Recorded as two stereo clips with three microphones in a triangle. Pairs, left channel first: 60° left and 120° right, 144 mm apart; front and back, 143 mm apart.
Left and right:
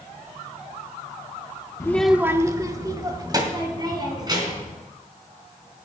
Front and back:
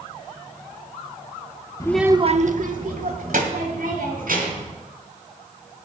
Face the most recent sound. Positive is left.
turn(degrees=180)